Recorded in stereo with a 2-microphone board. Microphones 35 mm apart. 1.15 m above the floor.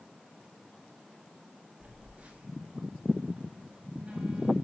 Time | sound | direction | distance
1.8 | a phone buzzing | 40° right (ahead or behind) | 4 m